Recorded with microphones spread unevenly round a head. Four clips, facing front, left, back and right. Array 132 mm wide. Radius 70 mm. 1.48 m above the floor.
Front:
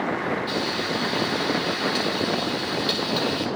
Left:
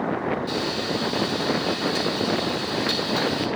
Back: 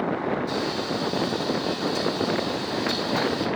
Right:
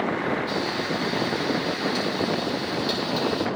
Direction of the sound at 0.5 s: 25° left.